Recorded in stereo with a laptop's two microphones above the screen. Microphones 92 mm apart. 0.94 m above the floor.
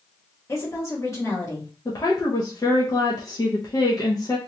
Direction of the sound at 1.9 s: 40° left (ahead or behind).